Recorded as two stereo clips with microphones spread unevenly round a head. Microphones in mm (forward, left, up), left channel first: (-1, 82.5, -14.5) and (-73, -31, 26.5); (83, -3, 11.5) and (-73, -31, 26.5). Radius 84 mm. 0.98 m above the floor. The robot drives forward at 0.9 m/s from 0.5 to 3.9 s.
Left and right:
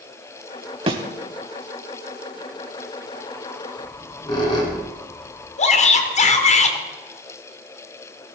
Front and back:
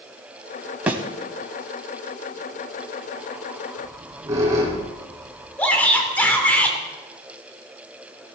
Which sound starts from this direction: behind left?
A squeak, at 3.8 s.